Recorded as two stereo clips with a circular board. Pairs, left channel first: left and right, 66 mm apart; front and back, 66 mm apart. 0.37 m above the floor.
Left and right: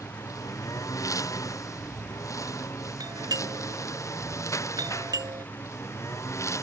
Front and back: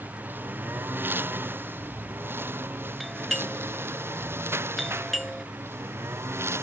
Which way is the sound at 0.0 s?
120° left.